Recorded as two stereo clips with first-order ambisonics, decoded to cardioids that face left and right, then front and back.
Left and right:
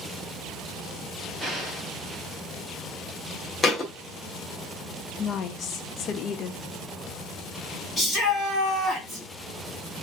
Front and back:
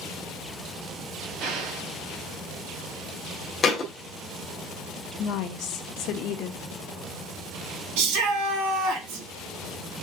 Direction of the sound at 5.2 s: 35° left.